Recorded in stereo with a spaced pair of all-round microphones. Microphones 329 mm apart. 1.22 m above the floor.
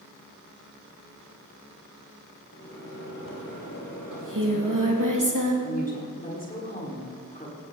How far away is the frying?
I don't hear frying.